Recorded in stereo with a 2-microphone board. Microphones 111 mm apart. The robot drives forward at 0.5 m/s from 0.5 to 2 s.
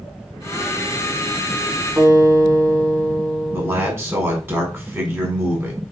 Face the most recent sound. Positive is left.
turn(degrees=-20)  # may be behind; listen again after turning